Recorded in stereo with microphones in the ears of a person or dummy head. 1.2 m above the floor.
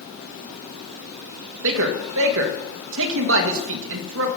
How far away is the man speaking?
About 1.9 m.